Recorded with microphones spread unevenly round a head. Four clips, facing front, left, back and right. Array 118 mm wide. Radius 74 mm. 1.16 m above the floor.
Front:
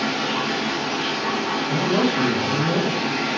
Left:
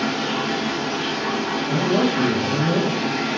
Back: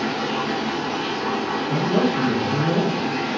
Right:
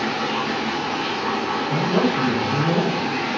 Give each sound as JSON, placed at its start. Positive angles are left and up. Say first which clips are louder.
{"t": 0.0, "sound": "running water", "louder": "even, even", "azimuth_deg": 105, "distance_m": 1.2}
{"t": 1.7, "sound": "a man speaking", "louder": "left 1 dB, even", "azimuth_deg": 80, "distance_m": 1.6}